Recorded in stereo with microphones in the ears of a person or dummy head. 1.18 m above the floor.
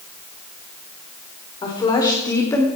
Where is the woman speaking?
25° left (ahead or behind), 4.5 m; by 2.7 s 15° left (ahead or behind), 3 m.